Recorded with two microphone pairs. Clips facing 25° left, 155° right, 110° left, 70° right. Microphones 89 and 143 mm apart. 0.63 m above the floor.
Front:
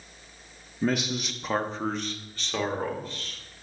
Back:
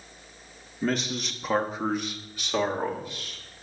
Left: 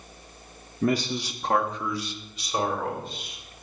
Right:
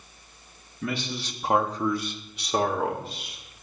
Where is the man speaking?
100° left, 0.7 m; by 3.4 s 80° right, 2 m.